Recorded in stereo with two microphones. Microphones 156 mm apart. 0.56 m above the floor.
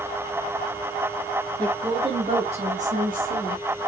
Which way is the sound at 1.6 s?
25° right (ahead or behind).